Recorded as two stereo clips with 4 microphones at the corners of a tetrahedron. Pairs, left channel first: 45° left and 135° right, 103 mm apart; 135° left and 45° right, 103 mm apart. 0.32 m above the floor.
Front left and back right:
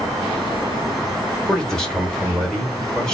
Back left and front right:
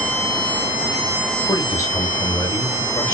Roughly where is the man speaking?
Behind left.